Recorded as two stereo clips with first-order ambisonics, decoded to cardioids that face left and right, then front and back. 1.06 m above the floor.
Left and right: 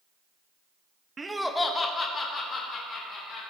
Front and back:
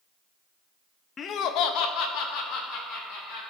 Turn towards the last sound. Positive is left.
turn(degrees=30)